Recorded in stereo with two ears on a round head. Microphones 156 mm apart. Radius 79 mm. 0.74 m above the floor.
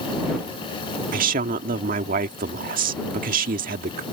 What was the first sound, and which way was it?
A woman speaking, 55° right (ahead or behind).